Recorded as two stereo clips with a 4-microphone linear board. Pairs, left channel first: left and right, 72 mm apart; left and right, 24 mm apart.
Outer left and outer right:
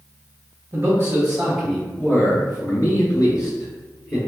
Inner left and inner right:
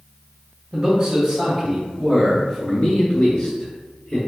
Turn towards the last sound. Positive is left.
turn(degrees=65)  # may be behind; listen again after turning